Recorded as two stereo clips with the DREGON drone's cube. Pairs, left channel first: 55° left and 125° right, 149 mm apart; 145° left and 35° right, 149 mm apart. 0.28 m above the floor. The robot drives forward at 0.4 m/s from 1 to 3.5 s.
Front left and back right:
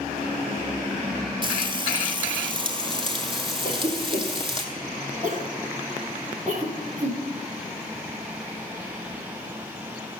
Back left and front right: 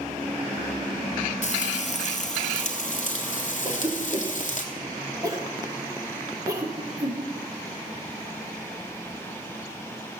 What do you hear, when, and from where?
1.4 s frying: straight behind, 1.0 m
3.6 s a cough: 100° right, 3 m